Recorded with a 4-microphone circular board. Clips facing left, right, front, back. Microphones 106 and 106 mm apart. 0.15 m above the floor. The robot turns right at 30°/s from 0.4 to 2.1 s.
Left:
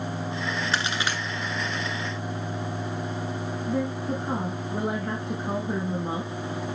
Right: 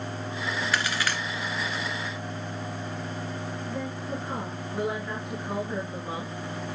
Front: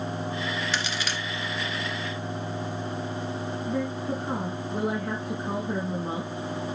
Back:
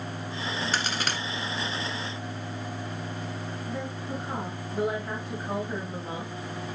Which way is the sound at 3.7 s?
40° left.